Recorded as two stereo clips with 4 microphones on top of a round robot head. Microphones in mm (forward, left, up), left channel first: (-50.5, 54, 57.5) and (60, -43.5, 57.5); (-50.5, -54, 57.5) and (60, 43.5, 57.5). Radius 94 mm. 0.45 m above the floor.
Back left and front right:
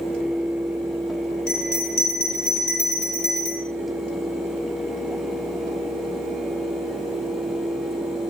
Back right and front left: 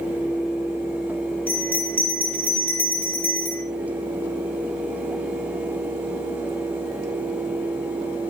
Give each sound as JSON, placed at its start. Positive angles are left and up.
{"t": 1.5, "sound": "a bell", "azimuth_deg": 140, "distance_m": 4.5}